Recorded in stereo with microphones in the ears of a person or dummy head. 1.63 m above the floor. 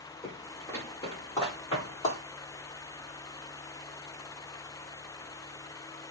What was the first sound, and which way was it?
Footsteps, 5° left (ahead or behind).